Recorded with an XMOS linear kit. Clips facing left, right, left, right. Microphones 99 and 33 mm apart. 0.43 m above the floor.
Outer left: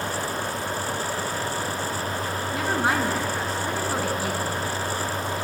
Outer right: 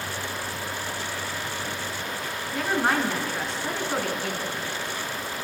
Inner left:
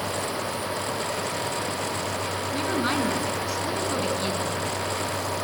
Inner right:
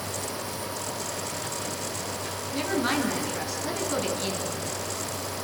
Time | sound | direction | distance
2.5 | a woman speaking | centre (ahead or behind) | 4.5 m